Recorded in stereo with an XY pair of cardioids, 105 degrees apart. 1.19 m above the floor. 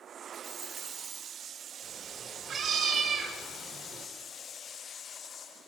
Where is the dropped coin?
35° right, 1.5 m.